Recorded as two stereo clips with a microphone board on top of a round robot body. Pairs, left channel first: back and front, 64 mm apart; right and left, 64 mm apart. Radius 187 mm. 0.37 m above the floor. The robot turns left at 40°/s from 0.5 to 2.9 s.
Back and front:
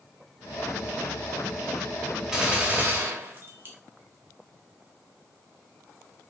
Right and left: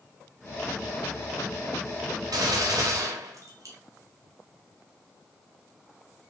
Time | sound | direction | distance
2.3 | a gunshot | 80° left | 0.8 m